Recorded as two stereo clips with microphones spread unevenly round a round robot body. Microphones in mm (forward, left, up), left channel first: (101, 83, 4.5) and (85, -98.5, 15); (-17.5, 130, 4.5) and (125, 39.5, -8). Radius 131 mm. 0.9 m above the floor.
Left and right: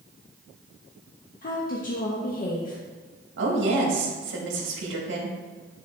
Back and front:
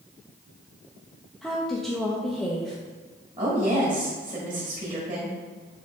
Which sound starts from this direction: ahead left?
A woman speaking, at 1.4 s.